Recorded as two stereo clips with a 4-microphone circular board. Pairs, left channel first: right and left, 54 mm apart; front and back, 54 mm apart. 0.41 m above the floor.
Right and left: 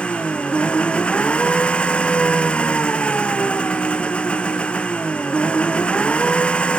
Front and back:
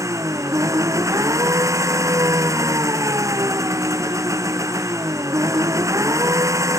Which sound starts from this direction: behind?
An engine running, at 0.0 s.